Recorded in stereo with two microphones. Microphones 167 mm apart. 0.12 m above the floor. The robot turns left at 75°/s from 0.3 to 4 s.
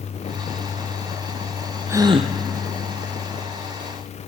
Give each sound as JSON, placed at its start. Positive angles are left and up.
{"t": 1.9, "sound": "a gasp", "azimuth_deg": -15, "distance_m": 0.7}